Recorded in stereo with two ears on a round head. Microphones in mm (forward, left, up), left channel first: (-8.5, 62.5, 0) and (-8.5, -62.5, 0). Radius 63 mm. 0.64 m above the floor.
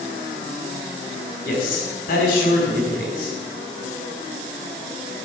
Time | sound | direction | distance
1.4 | a man speaking | 70° left (ahead or behind) | 5 m